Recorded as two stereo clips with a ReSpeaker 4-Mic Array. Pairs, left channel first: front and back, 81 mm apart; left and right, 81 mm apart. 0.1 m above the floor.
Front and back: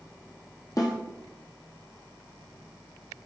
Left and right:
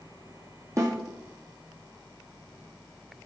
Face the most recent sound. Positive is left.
turn(degrees=-40)